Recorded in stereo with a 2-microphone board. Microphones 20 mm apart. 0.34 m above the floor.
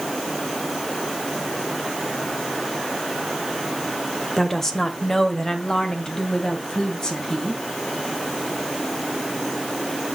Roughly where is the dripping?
I don't hear dripping.